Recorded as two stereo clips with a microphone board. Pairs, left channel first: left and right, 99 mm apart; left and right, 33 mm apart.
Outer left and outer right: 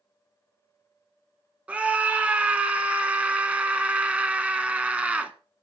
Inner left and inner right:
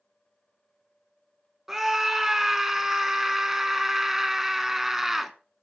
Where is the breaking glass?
I don't hear breaking glass.